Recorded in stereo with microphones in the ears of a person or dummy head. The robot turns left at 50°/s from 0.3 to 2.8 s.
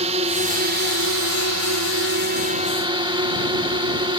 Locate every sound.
0.0 s a drone: 35° right; by 4.2 s 160° right